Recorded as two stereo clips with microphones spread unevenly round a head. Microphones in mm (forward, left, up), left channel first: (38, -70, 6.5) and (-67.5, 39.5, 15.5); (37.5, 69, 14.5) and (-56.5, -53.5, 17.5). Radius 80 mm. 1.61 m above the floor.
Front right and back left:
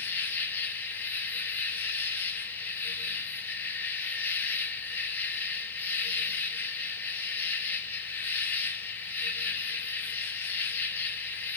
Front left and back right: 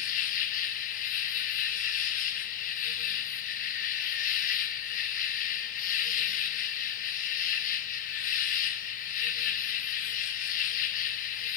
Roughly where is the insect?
Ahead left.